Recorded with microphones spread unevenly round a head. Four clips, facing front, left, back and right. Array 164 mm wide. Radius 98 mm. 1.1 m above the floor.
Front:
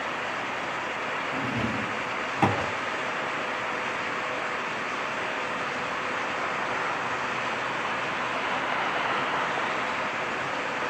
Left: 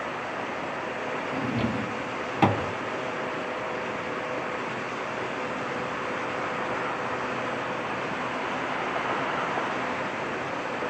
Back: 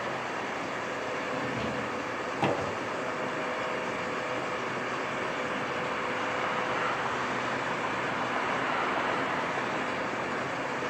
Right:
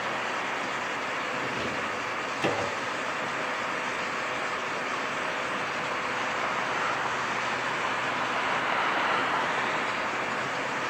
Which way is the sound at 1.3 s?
45° left.